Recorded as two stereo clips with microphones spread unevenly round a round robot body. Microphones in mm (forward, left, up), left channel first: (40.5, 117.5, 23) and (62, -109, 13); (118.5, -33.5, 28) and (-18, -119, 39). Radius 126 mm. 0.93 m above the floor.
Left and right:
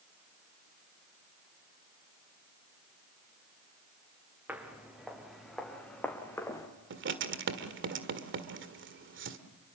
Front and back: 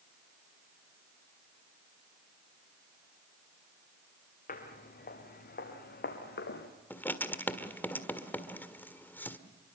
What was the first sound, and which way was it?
Footsteps, straight ahead.